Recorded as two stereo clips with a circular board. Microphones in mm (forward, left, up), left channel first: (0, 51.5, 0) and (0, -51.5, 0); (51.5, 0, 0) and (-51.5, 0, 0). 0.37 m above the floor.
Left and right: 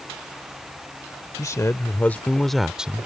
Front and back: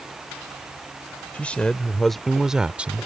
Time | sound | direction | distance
1.3 | a man speaking | 65° left | ?